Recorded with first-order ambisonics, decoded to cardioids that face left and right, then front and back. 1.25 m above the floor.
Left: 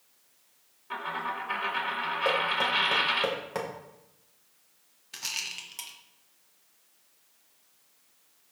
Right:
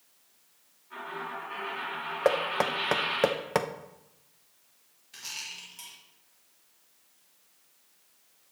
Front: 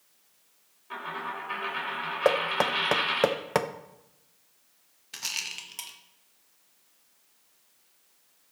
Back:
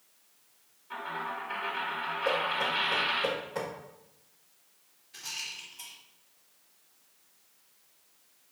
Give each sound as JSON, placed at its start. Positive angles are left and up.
{"t": 0.9, "sound": "a dropped coin", "azimuth_deg": 70, "distance_m": 2.5}
{"t": 2.2, "sound": "knocking", "azimuth_deg": -30, "distance_m": 0.7}
{"t": 5.1, "sound": "a rattle", "azimuth_deg": 30, "distance_m": 1.2}